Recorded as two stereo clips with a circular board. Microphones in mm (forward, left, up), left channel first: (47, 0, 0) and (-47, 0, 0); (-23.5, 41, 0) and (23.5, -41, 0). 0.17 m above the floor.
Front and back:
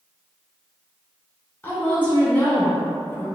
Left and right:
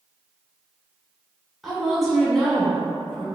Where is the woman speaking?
35° left, 1.3 m.